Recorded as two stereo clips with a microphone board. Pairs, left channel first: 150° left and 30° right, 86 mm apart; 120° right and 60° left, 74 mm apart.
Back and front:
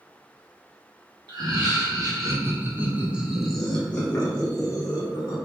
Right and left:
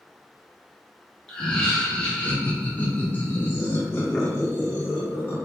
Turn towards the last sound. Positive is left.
turn(degrees=175)